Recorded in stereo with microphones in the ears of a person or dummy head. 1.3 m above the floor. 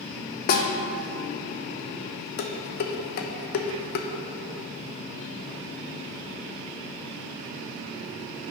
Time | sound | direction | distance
0.5 | a snare drum | 50° left (ahead or behind) | 0.7 m
2.4 | dishes clattering | 55° left (ahead or behind) | 0.6 m